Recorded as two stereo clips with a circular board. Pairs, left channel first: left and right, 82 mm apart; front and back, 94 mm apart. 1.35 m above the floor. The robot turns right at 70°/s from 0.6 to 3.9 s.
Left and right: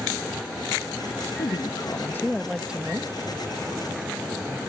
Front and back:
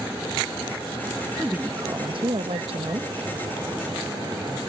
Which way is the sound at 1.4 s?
100° left.